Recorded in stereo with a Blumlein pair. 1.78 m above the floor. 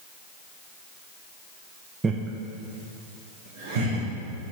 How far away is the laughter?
About 0.7 m.